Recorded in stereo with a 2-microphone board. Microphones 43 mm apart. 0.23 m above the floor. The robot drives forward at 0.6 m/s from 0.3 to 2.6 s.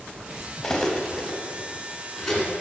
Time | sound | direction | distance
0.6 | cutlery clinking | 15° left (ahead or behind) | 0.6 m